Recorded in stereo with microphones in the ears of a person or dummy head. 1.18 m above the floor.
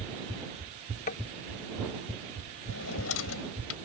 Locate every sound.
1.1 s tapping: 45° left (ahead or behind)
2.7 s a drawer: 85° left